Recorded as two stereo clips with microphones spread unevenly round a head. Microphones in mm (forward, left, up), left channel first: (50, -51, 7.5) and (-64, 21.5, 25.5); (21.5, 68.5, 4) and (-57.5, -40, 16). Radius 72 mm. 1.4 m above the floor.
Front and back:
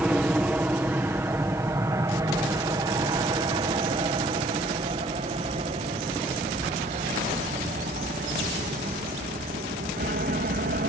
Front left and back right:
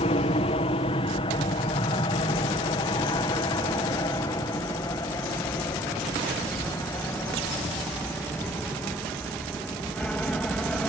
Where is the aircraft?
65° left; by 10.9 s 135° left.